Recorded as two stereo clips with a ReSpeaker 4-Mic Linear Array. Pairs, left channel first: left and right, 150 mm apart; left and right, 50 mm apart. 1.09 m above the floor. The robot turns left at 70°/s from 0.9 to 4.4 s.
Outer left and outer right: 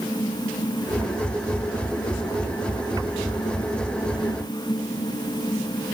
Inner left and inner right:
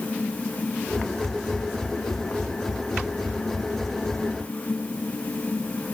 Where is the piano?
No piano in this recording.